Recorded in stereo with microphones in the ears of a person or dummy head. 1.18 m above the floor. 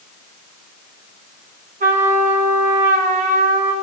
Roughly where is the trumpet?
Right.